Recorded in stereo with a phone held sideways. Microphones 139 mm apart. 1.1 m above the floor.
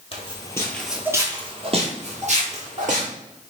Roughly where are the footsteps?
Left.